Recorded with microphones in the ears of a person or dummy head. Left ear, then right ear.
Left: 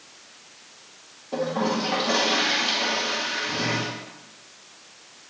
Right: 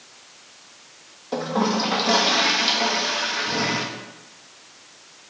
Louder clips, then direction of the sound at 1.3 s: Right 2 dB; 65° right (ahead or behind).